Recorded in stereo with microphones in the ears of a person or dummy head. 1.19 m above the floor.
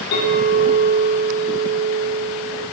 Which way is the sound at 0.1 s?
60° left (ahead or behind).